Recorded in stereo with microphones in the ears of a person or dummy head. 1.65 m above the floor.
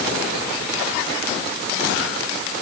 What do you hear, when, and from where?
Only background noise.